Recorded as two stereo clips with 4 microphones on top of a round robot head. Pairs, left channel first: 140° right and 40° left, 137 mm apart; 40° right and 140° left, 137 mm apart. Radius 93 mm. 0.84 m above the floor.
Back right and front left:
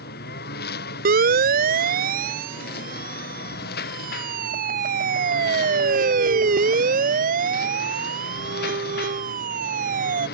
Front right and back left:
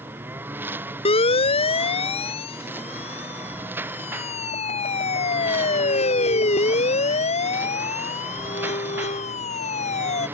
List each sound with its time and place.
0.0 s a lawn mower: 140° right
1.1 s a siren: 15° left; by 10.2 s 5° left